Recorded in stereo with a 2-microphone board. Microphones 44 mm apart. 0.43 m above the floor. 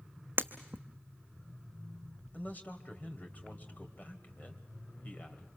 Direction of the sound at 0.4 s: 55° right (ahead or behind).